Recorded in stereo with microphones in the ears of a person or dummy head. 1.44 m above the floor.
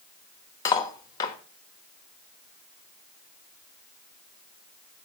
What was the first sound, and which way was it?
Cutlery clinking, 20° left (ahead or behind).